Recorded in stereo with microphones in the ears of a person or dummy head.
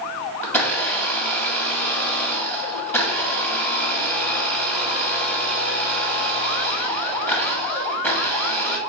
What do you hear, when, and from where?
0.4 s a blender: 10° left (ahead or behind), 0.8 m